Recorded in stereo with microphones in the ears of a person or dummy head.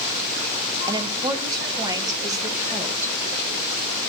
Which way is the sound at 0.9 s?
25° right (ahead or behind).